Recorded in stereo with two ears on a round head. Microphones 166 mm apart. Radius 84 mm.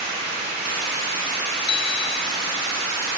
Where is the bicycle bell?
60° left (ahead or behind).